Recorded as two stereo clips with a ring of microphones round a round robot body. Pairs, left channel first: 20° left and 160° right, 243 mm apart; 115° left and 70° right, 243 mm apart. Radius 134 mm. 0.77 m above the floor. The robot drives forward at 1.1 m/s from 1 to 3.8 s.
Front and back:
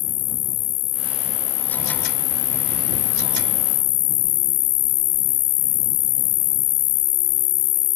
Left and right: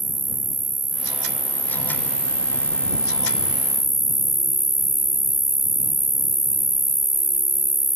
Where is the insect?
10° left; by 8.0 s 15° left.